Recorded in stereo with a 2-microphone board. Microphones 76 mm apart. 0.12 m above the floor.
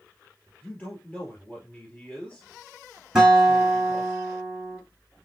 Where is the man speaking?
20° left (ahead or behind), 2.5 m.